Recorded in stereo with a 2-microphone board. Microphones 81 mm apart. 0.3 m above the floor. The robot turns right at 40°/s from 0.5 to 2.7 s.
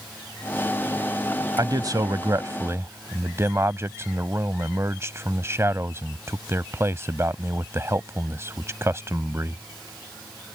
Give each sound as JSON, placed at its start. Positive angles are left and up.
{"t": 1.6, "sound": "a man speaking", "side_deg": -50}